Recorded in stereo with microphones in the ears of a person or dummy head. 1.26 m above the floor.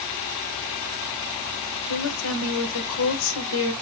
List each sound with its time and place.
1.9 s a woman speaking: 70° left (ahead or behind), 1.1 m